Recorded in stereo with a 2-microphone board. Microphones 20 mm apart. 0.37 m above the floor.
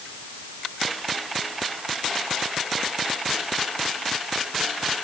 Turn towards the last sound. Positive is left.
No sound to turn to.